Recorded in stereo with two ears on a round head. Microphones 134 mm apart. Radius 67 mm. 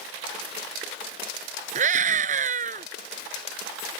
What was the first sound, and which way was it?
A scream, 55° right (ahead or behind).